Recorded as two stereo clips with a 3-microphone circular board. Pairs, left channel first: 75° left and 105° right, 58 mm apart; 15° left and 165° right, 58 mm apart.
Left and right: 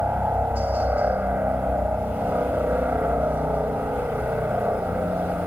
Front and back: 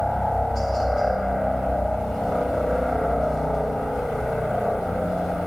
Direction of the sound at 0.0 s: 75° right.